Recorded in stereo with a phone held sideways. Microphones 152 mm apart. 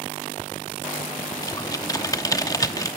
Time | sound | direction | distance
1.4 | typing on a keyboard | 25° left (ahead or behind) | 0.9 m